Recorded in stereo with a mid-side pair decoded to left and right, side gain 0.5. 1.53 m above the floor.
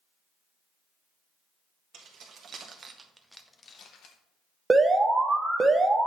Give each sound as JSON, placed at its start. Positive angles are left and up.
{"t": 1.9, "sound": "keys jangling", "azimuth_deg": -65, "distance_m": 1.6}
{"t": 4.7, "sound": "an alarm", "azimuth_deg": -20, "distance_m": 1.1}